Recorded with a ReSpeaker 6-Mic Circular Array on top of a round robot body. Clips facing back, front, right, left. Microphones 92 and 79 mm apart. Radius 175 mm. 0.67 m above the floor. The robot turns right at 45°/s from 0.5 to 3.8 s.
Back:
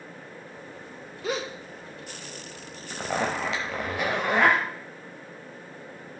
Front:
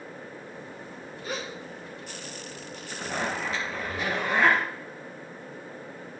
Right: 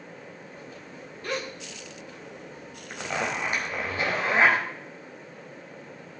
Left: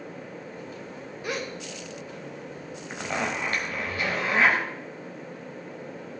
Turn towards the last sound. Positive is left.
turn(degrees=-150)